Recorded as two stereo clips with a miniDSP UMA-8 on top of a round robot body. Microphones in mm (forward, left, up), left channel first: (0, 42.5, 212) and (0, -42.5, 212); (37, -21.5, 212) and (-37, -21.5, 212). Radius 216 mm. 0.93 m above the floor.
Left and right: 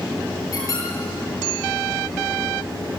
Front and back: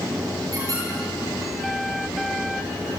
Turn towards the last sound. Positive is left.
turn(degrees=135)